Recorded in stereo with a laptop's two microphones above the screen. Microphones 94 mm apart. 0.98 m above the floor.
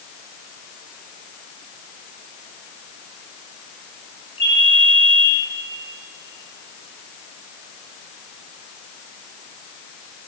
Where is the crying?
No crying in this recording.